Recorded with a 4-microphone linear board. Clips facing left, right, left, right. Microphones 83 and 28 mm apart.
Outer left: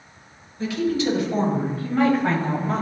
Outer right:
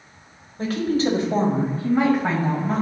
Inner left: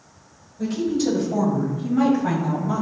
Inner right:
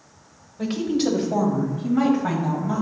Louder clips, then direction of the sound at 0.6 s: Outer right 1 dB, even; 50° right (ahead or behind).